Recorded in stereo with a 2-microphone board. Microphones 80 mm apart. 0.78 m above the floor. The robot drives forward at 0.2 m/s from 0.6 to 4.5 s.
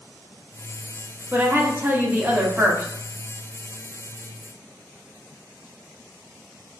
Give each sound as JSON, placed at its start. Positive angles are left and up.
{"t": 1.3, "sound": "a woman speaking", "side_deg": -25, "distance_m": 0.7}